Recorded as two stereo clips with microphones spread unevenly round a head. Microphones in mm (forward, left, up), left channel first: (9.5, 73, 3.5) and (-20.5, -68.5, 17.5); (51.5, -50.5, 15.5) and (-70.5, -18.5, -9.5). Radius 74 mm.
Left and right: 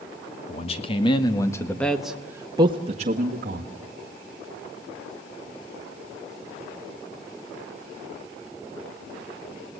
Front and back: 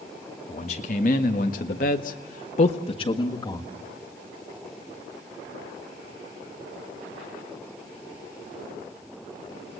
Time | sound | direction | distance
0.5 | a man speaking | 35° left | 2.5 m